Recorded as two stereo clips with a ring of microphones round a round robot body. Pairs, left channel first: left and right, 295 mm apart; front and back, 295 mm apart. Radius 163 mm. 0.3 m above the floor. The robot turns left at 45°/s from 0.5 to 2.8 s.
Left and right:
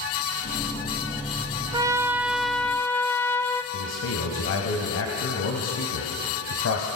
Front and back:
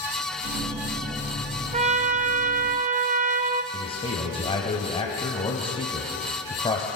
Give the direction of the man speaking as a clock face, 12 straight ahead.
10 o'clock.